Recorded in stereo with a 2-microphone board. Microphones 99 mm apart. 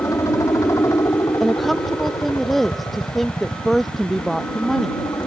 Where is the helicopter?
35° left (ahead or behind).